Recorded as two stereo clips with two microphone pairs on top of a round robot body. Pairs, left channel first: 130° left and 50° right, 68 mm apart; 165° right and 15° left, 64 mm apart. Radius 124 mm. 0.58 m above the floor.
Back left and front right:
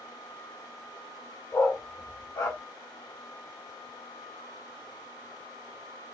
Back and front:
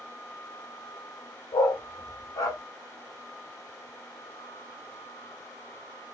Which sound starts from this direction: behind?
A dog barking, at 1.5 s.